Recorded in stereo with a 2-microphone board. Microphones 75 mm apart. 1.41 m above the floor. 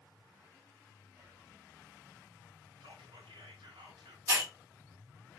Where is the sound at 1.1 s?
30° right (ahead or behind), 1.0 m.